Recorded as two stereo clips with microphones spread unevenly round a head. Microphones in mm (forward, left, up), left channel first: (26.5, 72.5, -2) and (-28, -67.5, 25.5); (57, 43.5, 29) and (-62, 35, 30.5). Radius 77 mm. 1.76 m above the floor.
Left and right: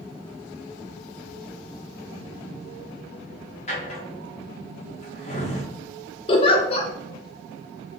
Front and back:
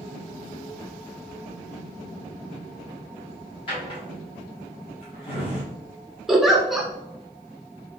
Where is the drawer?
25° left, 1.5 m.